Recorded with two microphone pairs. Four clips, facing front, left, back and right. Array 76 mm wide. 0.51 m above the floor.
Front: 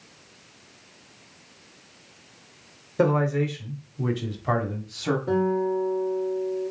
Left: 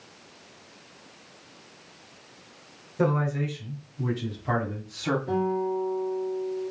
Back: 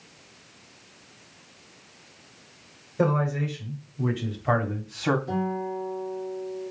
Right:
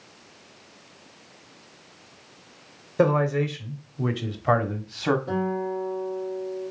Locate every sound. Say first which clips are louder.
3.0 s a man speaking: right 4 dB, front 3 dB; 60° right, 1.7 m; by 5.2 s 135° right, 1.1 m
5.3 s a guitar: left 1 dB, front 6 dB; 5° right, 2.5 m